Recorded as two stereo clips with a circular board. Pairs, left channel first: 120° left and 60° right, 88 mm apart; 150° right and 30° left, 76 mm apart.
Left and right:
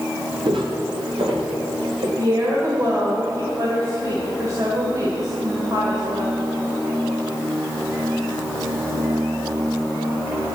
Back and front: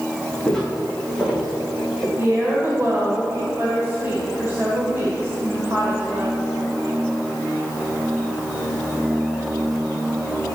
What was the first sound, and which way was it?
Footsteps, 65° right.